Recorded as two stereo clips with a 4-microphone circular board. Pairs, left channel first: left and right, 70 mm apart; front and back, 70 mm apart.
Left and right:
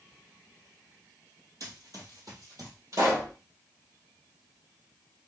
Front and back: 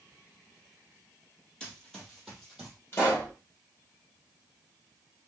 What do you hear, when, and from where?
1.6 s running footsteps: 80° right, 2.5 m; by 2.8 s 100° right, 3 m
2.9 s a pop: 55° right, 3 m